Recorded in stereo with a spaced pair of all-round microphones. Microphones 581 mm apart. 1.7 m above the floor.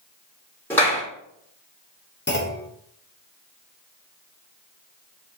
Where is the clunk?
20° left (ahead or behind), 0.8 m.